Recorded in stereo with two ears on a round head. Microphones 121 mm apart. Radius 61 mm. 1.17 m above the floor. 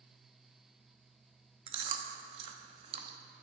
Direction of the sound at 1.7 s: 40° right (ahead or behind).